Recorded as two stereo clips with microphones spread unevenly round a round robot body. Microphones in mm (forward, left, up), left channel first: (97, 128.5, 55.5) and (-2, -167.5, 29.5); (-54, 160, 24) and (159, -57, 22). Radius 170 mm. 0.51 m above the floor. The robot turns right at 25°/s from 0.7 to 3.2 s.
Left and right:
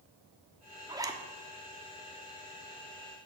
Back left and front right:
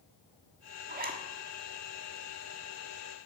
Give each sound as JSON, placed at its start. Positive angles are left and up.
{"t": 0.9, "sound": "a zipper", "azimuth_deg": -55, "distance_m": 1.3}